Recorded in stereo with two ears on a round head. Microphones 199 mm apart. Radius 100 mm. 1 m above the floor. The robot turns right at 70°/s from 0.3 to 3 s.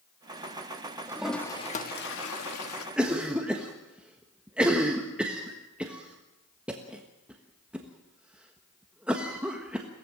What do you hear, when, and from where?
1.1 s a toilet flushing: 15° right, 1.5 m; by 2.9 s 110° left, 1.5 m
3.0 s a cough: 5° right (ahead or behind), 1.4 m